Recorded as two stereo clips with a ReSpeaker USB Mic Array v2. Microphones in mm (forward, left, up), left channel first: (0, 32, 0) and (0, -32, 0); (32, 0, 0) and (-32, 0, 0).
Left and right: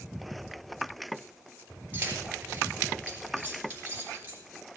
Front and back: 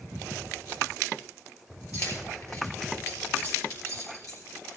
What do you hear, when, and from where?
1.9 s keys jangling: 30° right, 4.5 m